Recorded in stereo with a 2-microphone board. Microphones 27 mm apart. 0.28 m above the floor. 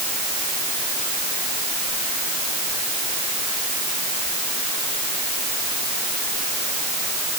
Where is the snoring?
No snoring in this recording.